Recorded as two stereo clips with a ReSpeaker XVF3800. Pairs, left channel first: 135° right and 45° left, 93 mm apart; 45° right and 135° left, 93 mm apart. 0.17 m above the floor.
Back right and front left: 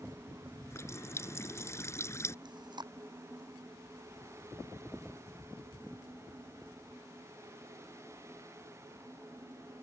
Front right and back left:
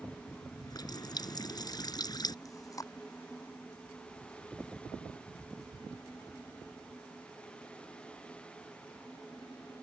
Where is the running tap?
80° right.